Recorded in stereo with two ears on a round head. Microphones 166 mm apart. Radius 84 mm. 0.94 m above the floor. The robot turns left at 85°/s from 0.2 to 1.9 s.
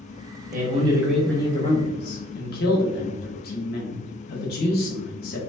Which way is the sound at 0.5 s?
125° right.